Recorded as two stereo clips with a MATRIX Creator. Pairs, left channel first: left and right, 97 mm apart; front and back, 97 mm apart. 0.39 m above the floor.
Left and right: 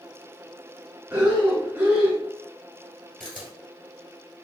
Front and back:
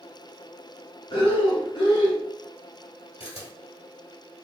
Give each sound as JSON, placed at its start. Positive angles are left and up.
{"t": 1.1, "sound": "breathing", "azimuth_deg": -15, "distance_m": 1.1}
{"t": 3.2, "sound": "a camera shutter", "azimuth_deg": 5, "distance_m": 1.6}